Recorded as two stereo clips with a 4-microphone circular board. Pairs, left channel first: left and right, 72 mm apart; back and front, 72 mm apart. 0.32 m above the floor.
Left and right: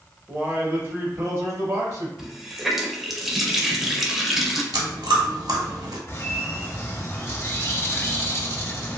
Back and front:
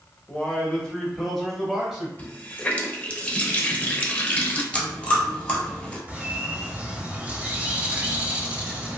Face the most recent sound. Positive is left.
turn(degrees=55)